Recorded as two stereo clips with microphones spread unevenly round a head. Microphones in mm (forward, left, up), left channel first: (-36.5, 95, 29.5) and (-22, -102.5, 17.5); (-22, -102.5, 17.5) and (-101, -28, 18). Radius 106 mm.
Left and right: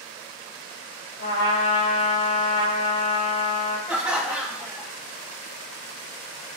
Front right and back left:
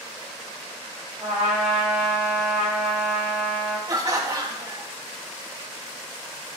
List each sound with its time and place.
1.2 s a trumpet: 50° left, 2 m
3.9 s laughter: 170° right, 1.7 m